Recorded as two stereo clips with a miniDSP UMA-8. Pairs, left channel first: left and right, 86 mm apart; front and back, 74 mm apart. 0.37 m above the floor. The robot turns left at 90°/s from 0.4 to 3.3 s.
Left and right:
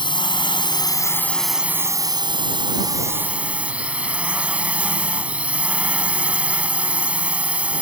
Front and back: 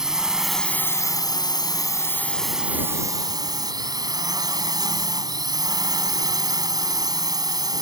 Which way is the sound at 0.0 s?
100° left.